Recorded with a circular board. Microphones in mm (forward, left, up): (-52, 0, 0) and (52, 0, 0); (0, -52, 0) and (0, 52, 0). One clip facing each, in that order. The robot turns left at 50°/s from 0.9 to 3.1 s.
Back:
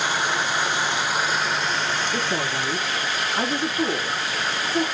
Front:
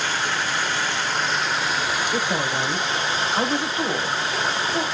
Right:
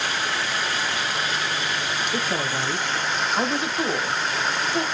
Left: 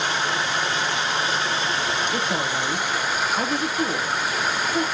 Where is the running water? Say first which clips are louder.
Back 1 dB, left 2 dB; 125° left, 0.8 m; by 4.9 s 15° left, 0.8 m.